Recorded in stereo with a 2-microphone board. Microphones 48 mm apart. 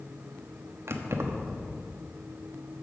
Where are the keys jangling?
75° right (ahead or behind), 1.1 m.